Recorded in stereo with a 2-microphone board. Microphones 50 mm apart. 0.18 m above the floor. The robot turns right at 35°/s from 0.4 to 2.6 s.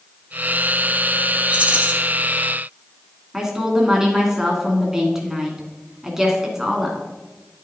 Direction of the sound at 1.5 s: 25° right (ahead or behind).